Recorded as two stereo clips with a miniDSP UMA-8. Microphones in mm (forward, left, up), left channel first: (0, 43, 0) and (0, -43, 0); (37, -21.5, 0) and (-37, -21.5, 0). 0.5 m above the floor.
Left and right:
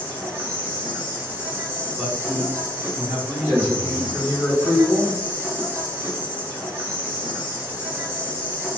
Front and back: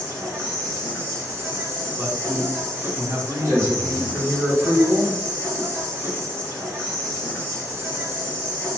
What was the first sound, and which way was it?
An insect, 145° right.